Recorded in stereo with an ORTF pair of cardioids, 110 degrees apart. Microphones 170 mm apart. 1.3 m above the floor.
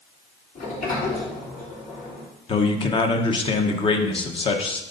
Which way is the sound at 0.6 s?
60° left.